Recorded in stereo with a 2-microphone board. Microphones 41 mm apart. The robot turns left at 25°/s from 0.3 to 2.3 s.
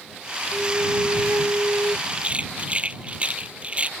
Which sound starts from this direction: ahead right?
A flute, at 0.5 s.